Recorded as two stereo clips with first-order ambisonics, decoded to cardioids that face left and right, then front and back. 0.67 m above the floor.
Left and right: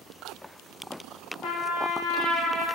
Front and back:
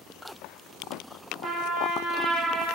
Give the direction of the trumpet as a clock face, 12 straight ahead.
8 o'clock.